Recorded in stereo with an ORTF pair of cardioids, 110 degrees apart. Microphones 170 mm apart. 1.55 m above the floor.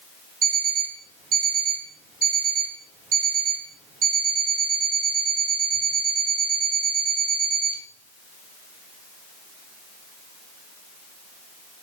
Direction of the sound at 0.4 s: 60° right.